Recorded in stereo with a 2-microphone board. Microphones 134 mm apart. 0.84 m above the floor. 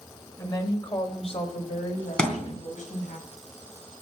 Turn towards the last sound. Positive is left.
turn(degrees=5)  # may be behind; listen again after turning